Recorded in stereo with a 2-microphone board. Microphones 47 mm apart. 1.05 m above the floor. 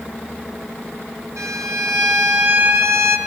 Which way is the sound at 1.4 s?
90° right.